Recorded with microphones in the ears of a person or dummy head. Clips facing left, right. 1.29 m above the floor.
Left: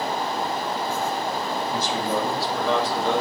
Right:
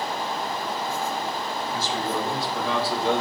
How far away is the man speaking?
About 1.5 m.